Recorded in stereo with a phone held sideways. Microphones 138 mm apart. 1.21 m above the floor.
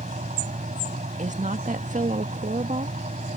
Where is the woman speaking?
75° right (ahead or behind).